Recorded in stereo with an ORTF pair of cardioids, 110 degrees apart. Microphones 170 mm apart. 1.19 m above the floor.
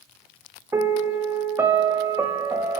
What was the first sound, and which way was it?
A piano, 15° right.